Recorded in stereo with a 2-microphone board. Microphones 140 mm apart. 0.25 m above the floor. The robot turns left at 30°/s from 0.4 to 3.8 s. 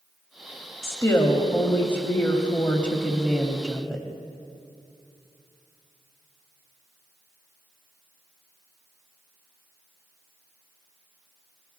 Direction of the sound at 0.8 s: 20° left (ahead or behind).